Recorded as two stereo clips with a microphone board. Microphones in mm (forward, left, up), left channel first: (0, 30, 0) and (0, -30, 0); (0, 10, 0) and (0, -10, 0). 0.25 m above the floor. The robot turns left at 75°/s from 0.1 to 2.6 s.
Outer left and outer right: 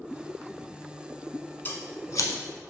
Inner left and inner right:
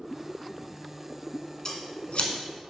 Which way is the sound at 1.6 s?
35° left (ahead or behind).